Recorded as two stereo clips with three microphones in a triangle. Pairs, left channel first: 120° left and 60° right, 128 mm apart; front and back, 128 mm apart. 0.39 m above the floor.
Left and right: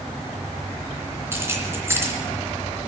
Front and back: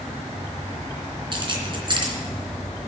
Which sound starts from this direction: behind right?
Keys jangling, at 1.3 s.